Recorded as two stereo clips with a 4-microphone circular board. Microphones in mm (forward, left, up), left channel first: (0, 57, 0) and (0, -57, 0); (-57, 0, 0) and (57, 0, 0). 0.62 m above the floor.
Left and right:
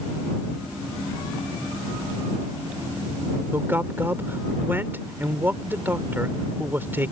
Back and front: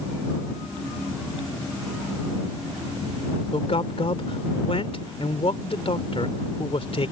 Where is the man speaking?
160° right.